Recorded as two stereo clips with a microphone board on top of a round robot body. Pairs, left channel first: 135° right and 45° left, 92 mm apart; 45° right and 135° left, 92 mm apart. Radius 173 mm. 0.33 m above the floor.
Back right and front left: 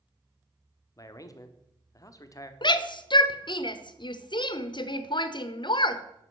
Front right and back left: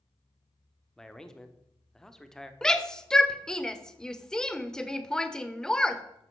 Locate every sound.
1.0 s a man speaking: 125° right, 1.5 m
2.6 s a shout: 125° right, 1.4 m